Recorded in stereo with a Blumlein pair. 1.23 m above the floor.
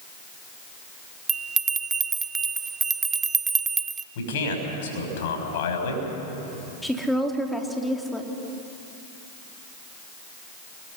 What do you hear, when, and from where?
1.3 s a bell: 15° right, 0.7 m
4.2 s a man speaking: 55° left, 6.5 m
6.8 s a woman speaking: straight ahead, 3 m